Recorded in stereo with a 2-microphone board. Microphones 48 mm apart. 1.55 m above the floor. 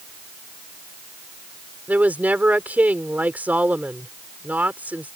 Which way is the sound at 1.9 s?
35° right (ahead or behind).